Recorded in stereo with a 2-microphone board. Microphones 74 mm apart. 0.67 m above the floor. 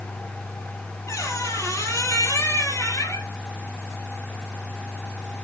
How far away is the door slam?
No door slam in this recording.